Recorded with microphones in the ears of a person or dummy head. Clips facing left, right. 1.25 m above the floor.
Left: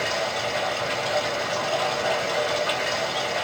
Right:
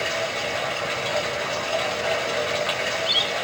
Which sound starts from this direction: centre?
Running water, at 0.0 s.